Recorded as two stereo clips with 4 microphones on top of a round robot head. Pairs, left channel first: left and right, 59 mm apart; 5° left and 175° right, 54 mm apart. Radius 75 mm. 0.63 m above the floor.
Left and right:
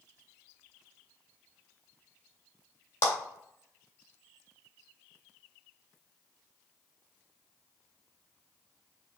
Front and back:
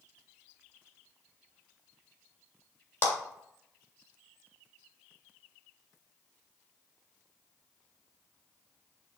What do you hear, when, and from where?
3.0 s a clap: 55° left, 2.5 m